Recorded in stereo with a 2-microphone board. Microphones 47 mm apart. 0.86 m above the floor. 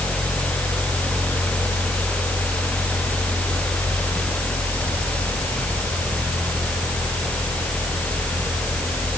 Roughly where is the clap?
No clap in this recording.